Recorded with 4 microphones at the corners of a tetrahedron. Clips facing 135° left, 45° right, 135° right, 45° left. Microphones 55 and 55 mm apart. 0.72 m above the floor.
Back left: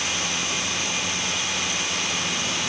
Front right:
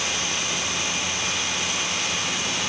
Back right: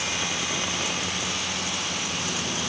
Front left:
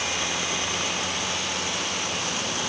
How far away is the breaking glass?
I don't hear breaking glass.